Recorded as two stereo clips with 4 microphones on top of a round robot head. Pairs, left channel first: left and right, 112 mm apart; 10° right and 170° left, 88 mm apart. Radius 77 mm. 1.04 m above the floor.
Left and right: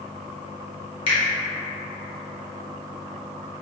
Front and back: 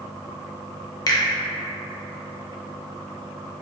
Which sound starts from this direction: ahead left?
A finger snap, at 1.1 s.